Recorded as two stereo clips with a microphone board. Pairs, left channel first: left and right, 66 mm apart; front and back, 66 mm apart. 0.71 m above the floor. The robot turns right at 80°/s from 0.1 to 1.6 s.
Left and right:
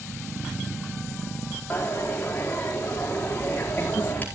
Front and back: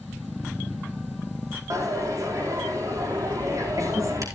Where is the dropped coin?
155° left, 4.5 m.